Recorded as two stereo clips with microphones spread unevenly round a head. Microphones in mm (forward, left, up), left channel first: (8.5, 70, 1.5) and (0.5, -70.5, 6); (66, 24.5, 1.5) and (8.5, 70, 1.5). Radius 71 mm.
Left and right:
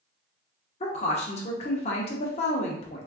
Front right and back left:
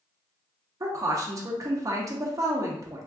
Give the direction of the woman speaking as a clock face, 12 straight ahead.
8 o'clock.